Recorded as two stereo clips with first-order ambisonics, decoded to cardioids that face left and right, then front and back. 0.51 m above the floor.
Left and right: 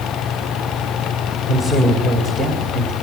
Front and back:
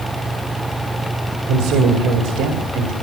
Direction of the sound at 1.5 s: 165° left.